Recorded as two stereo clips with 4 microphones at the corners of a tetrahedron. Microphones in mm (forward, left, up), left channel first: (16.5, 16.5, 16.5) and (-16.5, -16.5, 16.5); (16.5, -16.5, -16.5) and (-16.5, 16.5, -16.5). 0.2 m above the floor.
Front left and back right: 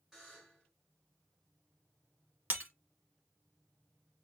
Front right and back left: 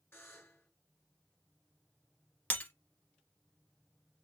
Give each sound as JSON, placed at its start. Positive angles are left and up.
{"t": 0.1, "sound": "a buzzer", "azimuth_deg": -60, "distance_m": 2.5}
{"t": 2.5, "sound": "breaking glass", "azimuth_deg": -90, "distance_m": 1.6}